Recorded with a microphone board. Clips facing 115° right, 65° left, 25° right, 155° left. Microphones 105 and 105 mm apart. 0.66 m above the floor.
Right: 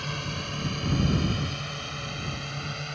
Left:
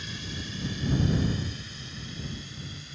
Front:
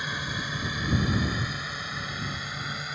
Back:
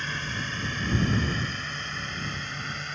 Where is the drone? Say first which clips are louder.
Right 5 dB, even; 100° right; by 3.0 s 105° right.